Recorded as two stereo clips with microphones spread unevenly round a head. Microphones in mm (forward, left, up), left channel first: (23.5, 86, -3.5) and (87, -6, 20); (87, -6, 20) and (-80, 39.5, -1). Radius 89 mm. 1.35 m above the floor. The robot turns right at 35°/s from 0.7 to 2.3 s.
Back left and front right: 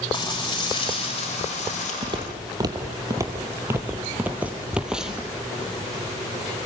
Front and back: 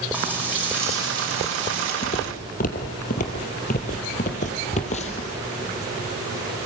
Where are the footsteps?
45° right, 2 m; by 5.3 s 25° left, 2 m.